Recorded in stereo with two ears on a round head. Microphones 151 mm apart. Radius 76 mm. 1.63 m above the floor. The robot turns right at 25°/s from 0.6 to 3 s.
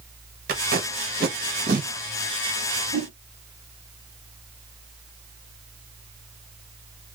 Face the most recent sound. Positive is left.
turn(degrees=-35)  # may be behind; listen again after turning